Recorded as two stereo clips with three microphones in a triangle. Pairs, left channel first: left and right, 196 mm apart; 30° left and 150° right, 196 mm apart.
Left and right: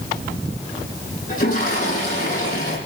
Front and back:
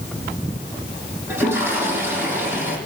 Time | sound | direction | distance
1.3 | a toilet flushing | 130° left | 8 m